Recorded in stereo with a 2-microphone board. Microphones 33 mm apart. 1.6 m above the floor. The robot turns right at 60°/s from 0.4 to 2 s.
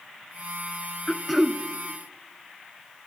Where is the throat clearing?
160° left, 0.6 m; by 1.6 s 165° right, 0.6 m.